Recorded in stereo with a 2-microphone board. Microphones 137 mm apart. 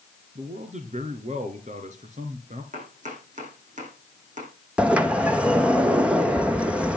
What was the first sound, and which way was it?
A man speaking, 60° right (ahead or behind).